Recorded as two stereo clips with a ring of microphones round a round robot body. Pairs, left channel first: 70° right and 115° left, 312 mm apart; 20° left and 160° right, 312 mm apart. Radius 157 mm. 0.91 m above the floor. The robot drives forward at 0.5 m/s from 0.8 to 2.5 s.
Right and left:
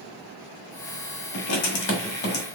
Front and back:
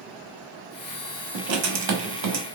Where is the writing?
105° right, 1.2 m; by 2.5 s 130° right, 1.5 m.